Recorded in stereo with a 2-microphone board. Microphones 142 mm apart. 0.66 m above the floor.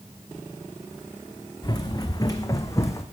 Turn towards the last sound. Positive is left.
turn(degrees=20)  # may be behind; listen again after turning